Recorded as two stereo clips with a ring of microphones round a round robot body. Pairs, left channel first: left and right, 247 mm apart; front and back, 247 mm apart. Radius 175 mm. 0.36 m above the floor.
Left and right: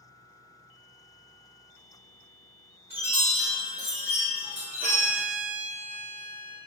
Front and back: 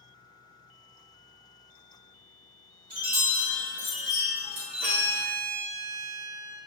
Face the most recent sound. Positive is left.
turn(degrees=-150)